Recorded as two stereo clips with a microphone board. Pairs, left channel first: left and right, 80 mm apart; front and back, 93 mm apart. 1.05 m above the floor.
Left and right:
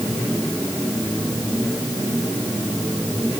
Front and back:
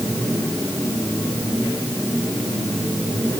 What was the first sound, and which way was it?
Only background noise.